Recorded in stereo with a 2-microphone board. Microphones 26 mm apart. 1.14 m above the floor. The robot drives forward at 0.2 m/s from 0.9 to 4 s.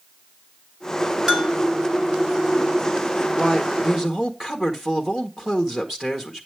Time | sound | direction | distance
1.3 | a bell | 20° right (ahead or behind) | 1.7 m
3.4 | a man speaking | 10° right (ahead or behind) | 1.5 m